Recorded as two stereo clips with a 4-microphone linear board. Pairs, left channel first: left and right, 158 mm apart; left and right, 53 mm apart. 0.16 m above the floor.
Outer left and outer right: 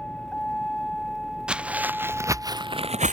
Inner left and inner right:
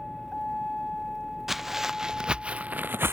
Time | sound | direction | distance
0.0 | a vehicle | 5° left (ahead or behind) | ?
1.5 | footsteps | 5° right (ahead or behind) | ?